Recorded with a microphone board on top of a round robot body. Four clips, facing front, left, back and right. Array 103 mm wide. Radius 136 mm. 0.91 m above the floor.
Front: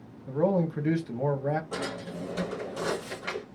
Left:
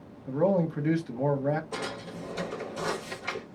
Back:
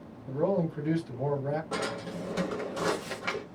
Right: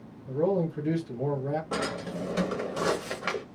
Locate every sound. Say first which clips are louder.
0.3 s a man speaking: left 1 dB, front 2 dB; 45° left, 1.2 m
1.7 s a drawer: right 4 dB, back 1 dB; 110° right, 1.2 m